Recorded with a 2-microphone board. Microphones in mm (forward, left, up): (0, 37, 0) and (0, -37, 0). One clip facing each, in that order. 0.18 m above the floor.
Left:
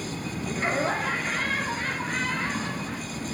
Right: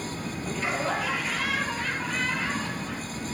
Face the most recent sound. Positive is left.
turn(degrees=45)  # may be behind; listen again after turning